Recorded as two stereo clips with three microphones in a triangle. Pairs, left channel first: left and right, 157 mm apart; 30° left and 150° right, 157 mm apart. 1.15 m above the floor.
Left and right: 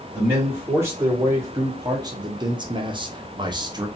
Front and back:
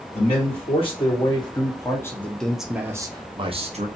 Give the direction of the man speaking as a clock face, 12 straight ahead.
1 o'clock.